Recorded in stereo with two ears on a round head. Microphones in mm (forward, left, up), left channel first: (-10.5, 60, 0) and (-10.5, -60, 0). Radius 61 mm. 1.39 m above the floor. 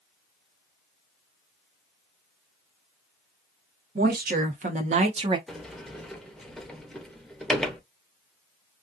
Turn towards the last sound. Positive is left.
turn(degrees=5)  # may be behind; listen again after turning